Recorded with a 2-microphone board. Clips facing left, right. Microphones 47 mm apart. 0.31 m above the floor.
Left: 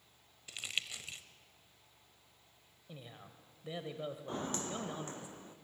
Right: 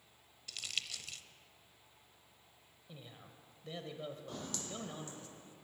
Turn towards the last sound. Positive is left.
turn(degrees=50)  # may be behind; listen again after turning